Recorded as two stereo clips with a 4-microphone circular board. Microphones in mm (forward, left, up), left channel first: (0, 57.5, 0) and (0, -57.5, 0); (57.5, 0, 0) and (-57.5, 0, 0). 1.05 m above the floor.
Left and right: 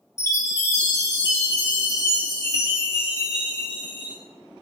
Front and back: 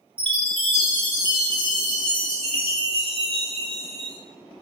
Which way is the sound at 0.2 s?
150° left.